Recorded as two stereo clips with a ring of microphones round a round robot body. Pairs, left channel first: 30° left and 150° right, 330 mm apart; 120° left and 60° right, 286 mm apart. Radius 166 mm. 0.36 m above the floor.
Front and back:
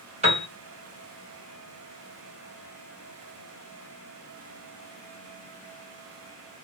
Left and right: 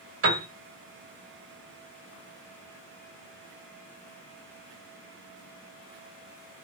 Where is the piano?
85° right, 2 m.